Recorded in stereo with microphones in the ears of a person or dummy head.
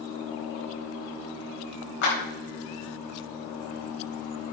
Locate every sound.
2.0 s a clap: 55° left (ahead or behind), 4 m